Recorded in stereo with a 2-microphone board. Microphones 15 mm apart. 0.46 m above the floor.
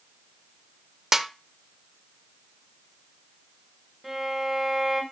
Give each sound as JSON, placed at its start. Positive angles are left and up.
{"t": 1.1, "sound": "a snare drum", "side_deg": -25, "distance_m": 0.7}
{"t": 4.0, "sound": "a violin", "side_deg": -15, "distance_m": 1.8}